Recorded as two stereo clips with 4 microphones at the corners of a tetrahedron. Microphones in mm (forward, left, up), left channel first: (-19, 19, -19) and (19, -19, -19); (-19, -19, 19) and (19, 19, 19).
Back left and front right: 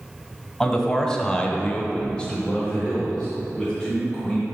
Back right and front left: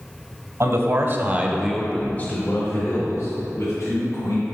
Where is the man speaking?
55° left, 1.5 m; by 4.4 s 145° right, 3.5 m.